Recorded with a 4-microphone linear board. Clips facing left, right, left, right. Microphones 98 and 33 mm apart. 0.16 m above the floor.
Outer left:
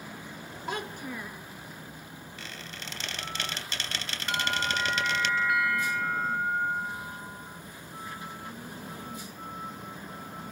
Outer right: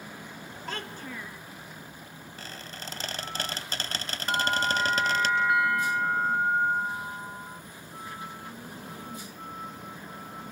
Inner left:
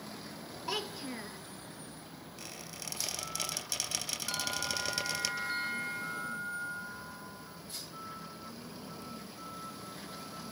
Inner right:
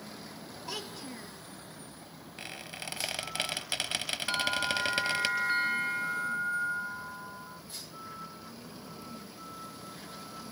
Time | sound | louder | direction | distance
0.7 | a child speaking | outer left 3 dB, inner left 4 dB | 15° left (ahead or behind) | 1.1 m
2.4 | a squeak | outer right 2 dB, inner right 6 dB | 40° right (ahead or behind) | 3 m
4.3 | a bell | outer right 4 dB, inner right 7 dB | 30° right (ahead or behind) | 0.5 m